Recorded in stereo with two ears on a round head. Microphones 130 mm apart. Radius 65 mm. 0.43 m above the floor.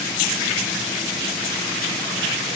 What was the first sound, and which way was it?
Only background noise.